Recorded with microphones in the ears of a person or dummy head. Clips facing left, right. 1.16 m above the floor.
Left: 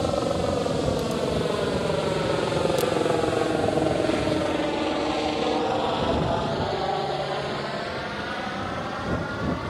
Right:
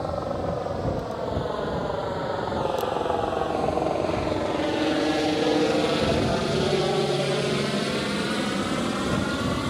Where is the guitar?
I don't hear a guitar.